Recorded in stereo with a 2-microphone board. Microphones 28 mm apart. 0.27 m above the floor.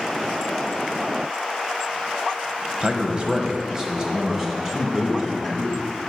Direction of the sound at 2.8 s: 35° right (ahead or behind).